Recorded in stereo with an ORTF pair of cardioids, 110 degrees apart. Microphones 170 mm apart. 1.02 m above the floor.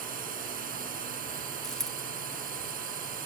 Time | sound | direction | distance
0.0 | a drone | 55° right | ?
1.6 | a dropped coin | 5° left | ?